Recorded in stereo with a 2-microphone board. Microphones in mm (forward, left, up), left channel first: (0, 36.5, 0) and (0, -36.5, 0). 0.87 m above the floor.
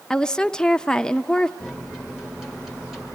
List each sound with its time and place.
0.1 s a woman speaking: 10° left (ahead or behind), 0.5 m
1.6 s a microwave: 5° right (ahead or behind), 1.4 m